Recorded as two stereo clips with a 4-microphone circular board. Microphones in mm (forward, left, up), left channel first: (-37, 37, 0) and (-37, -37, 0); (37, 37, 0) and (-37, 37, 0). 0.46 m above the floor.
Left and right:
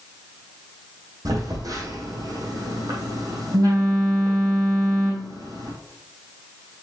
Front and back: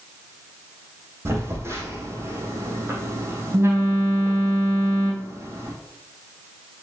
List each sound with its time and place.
1.2 s a phone buzzing: 125° right, 4 m